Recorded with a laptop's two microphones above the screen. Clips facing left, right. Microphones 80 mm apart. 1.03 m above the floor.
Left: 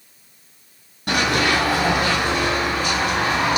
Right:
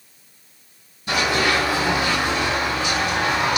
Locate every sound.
1.1 s running footsteps: 60° left (ahead or behind), 1.9 m; by 3.6 s 30° left (ahead or behind), 1.8 m